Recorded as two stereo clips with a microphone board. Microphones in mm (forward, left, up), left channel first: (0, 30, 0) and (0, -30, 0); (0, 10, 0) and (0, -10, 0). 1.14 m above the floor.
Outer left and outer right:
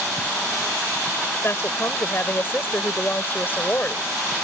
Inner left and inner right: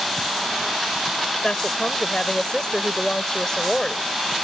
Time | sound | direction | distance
1.4 | a woman speaking | 40° left (ahead or behind) | ?